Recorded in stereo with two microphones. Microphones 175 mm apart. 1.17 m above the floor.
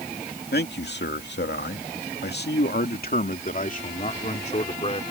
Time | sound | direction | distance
0.5 | a man speaking | 70° left (ahead or behind) | ?